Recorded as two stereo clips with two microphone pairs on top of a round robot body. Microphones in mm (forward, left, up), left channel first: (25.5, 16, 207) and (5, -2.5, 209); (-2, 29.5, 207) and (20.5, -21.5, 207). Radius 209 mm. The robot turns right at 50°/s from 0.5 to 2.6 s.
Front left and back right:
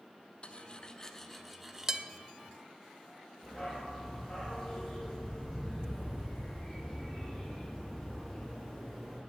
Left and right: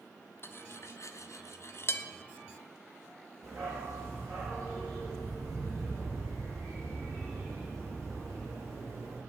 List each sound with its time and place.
0.4 s cutlery clinking: 80° left, 0.8 m; by 2.1 s 155° left, 0.8 m
3.4 s a dog barking: 40° right, 5 m